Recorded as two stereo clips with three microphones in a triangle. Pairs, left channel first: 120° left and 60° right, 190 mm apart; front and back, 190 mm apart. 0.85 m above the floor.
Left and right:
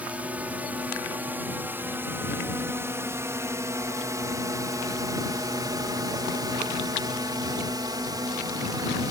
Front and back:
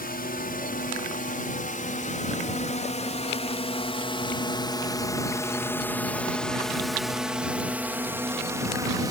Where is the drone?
20° left; by 9.1 s 120° right.